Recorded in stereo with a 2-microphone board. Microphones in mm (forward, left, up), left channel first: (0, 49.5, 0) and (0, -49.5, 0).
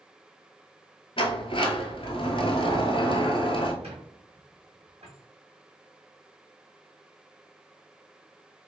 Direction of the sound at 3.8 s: 85° right.